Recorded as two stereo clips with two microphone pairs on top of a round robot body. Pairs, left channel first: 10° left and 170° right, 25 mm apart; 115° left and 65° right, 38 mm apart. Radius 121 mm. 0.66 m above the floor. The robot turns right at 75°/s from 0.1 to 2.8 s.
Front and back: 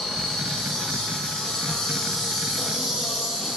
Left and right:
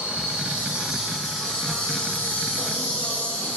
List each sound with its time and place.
0.0 s an insect: 60° right, 1.6 m; by 3.6 s 140° left, 1.6 m